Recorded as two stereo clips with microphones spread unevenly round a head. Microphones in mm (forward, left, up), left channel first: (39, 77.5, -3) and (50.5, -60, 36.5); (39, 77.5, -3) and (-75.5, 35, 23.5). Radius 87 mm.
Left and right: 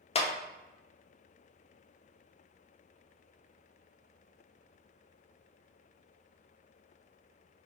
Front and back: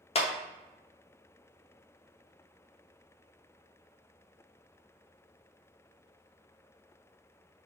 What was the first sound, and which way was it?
A clap, 55° left.